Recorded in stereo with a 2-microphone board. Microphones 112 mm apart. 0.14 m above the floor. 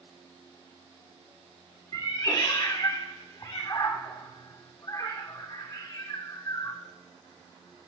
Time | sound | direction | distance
1.9 | a cat meowing | 35° left (ahead or behind) | 2 m